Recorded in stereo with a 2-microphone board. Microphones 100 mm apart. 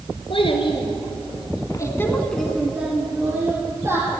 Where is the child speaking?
65° left (ahead or behind), 2 m; by 4.2 s 30° right (ahead or behind), 3 m.